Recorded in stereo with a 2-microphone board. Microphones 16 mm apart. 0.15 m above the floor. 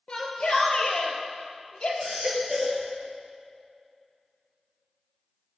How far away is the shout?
About 3 m.